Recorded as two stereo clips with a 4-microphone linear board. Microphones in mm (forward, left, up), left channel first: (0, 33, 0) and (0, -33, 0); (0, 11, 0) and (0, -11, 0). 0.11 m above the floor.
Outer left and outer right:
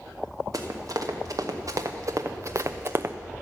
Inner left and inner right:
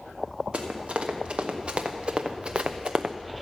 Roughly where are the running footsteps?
Right.